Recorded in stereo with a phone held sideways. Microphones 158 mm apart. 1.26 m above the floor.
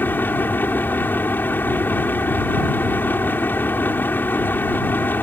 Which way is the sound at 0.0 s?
10° left (ahead or behind).